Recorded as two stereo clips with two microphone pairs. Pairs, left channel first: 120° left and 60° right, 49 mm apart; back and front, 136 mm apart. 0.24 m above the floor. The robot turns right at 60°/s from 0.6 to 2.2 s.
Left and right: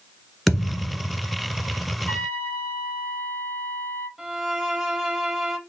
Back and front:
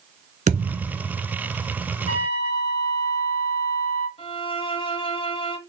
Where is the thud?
25° left, 1.4 m; by 1.2 s 60° left, 1.4 m.